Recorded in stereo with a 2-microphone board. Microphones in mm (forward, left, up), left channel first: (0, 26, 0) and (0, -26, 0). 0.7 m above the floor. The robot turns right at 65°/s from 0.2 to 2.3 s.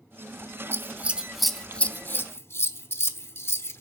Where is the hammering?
No hammering in this recording.